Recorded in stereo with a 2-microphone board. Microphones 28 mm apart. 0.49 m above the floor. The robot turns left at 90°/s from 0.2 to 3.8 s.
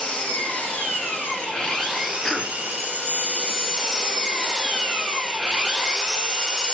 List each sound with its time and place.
0.0 s an engine running: 150° left, 2.5 m; by 6.7 s 175° right, 2.5 m
2.2 s a cough: 10° left (ahead or behind), 0.7 m; by 2.6 s centre (ahead or behind), 0.7 m